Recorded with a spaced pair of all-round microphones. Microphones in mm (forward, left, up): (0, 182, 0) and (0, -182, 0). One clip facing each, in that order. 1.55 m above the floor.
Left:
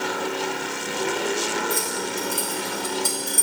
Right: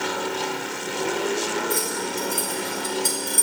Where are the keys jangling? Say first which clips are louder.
Right 1 dB; 20° left (ahead or behind), 2 m.